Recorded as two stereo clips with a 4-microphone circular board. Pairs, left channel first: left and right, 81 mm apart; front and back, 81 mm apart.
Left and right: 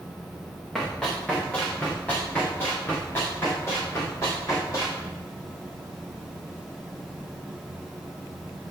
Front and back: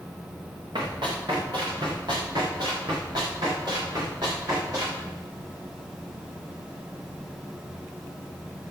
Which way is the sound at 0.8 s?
175° left.